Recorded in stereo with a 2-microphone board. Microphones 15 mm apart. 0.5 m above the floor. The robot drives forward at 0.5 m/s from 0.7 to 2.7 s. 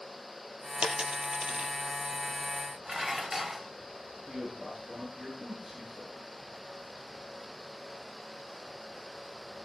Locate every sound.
0.8 s a dropped coin: 85° right, 3 m; by 1.7 s 80° right, 3.5 m
2.9 s dishes clattering: 20° right (ahead or behind), 1.5 m
4.3 s a man speaking: 35° right (ahead or behind), 8.5 m